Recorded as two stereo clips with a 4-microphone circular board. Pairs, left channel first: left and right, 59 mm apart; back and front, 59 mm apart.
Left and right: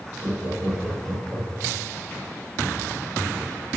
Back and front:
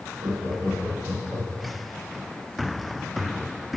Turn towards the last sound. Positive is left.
turn(degrees=-30)